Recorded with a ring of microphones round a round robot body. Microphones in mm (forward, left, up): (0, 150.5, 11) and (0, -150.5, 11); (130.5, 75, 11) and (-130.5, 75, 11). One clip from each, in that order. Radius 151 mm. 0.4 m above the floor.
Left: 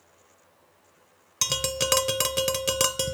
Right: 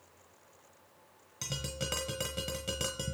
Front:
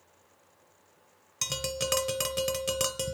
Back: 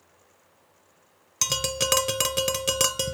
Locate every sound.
1.4 s tapping: 115° left, 0.8 m